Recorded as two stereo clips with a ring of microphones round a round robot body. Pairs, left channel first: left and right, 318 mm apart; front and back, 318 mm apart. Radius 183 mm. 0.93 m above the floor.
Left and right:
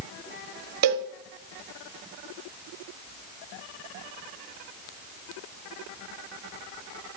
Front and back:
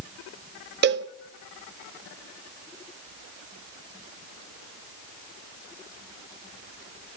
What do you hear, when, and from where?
0.8 s a cowbell: 125° right, 0.5 m